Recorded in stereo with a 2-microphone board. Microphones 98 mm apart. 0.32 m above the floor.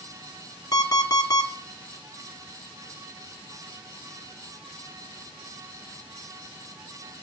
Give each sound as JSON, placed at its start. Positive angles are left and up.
{"t": 0.7, "sound": "an alarm clock", "side_deg": 40, "distance_m": 1.6}